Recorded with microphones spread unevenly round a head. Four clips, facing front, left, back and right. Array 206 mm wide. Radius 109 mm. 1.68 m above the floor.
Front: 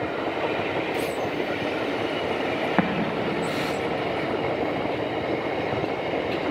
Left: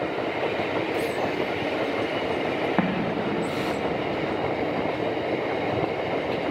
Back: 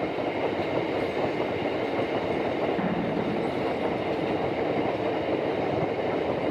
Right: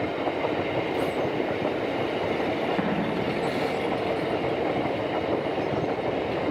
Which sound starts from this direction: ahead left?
An explosion, at 2.8 s.